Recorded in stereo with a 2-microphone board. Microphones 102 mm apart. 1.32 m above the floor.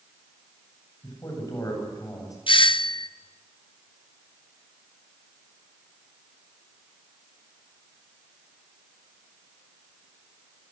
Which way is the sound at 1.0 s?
35° left (ahead or behind).